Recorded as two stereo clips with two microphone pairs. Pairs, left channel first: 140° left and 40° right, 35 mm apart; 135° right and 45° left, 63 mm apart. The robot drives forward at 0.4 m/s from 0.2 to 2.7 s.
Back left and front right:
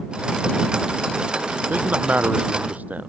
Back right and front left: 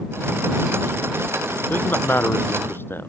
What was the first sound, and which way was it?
A man speaking, 75° right.